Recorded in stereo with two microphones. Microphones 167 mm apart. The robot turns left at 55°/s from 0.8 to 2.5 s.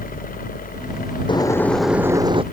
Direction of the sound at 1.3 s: 30° left.